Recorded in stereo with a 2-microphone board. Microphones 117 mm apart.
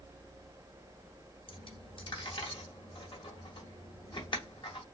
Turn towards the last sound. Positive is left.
turn(degrees=45)  # may be behind; listen again after turning